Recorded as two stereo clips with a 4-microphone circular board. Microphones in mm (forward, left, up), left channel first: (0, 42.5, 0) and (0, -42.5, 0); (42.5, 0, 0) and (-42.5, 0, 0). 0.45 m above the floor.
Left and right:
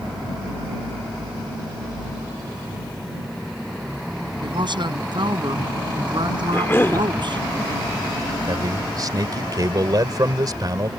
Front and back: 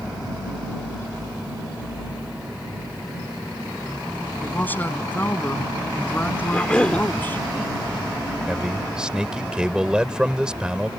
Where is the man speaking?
105° right.